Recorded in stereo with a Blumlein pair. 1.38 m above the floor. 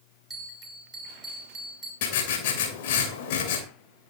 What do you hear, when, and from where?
0.3 s a bell: 15° right, 3.5 m
2.0 s writing: 50° left, 3 m